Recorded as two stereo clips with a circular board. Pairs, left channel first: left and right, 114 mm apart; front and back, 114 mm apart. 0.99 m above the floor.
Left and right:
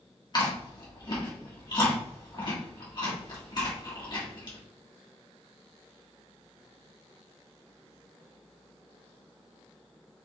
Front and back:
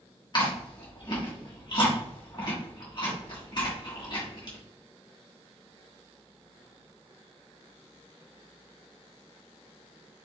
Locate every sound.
0.3 s chewing: 45° left, 1.5 m